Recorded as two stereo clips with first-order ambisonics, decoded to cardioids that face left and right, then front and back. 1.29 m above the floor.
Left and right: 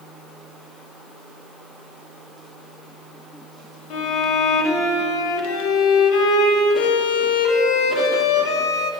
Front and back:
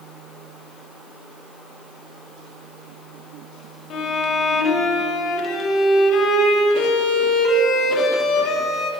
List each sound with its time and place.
3.9 s a violin: 55° left, 1.0 m